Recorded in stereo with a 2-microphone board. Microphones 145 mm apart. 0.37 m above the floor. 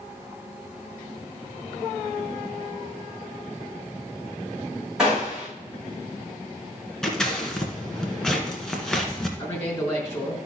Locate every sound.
5.0 s a gunshot: 5° right (ahead or behind), 5.5 m
7.0 s scissors: 5° left (ahead or behind), 1.7 m
9.4 s a man speaking: 15° left (ahead or behind), 4 m